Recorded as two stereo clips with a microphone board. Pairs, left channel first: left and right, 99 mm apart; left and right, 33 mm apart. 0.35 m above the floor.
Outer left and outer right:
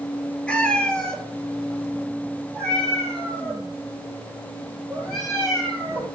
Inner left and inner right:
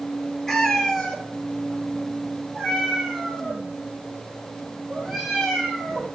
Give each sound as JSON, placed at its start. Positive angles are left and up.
{"t": 0.5, "sound": "a cat meowing", "side_deg": 10, "distance_m": 1.2}